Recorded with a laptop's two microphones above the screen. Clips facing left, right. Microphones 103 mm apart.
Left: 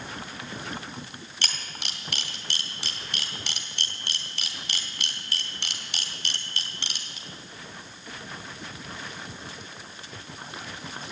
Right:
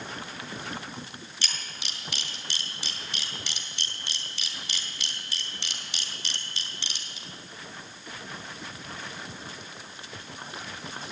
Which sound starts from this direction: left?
A camera shutter, at 1.4 s.